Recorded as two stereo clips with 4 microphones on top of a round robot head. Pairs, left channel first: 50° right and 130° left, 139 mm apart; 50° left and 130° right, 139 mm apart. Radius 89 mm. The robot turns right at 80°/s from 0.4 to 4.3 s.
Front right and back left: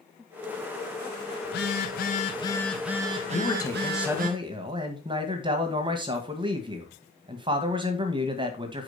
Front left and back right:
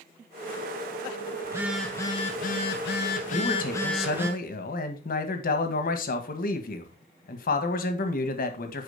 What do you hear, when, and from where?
1.4 s a phone buzzing: 65° right, 1.4 m; by 4.3 s 160° left, 1.4 m
3.3 s a man speaking: 10° right, 2.0 m; by 8.9 s 70° left, 2.0 m